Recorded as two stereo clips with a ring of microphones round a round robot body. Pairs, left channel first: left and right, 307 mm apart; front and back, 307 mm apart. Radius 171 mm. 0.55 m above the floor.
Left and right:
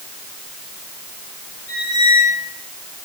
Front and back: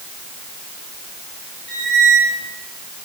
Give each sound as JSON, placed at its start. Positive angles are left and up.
{"t": 1.7, "sound": "a squeak", "azimuth_deg": 145, "distance_m": 3.5}